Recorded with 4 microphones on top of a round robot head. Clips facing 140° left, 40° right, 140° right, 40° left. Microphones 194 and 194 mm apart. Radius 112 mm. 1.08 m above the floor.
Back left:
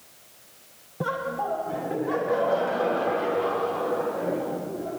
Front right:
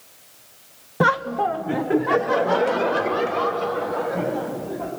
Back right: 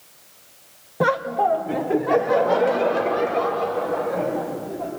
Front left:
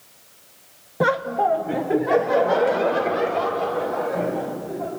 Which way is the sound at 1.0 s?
45° right.